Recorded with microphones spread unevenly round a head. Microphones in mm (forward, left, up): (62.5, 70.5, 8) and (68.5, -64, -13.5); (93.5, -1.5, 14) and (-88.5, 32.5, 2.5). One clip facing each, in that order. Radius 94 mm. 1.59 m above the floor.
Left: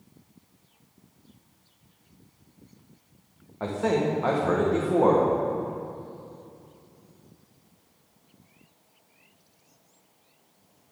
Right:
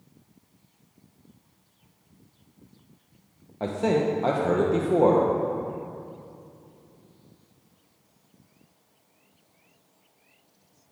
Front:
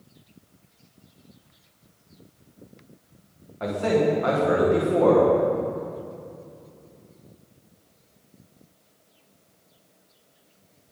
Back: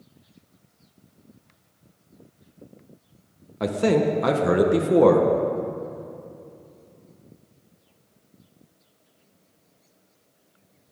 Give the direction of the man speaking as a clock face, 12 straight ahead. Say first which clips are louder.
Right 1 dB, back 1 dB; 5 o'clock.